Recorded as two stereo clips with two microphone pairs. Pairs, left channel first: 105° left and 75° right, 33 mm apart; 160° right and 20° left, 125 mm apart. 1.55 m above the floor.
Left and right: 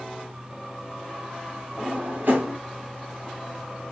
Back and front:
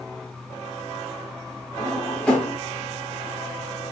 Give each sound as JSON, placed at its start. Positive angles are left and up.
{"t": 1.8, "sound": "a drawer", "azimuth_deg": -85, "distance_m": 5.5}